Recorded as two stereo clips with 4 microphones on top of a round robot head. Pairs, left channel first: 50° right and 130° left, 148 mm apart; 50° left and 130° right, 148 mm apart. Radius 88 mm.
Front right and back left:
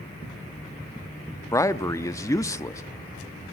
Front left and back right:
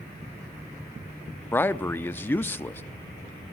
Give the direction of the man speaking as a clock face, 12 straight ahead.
12 o'clock.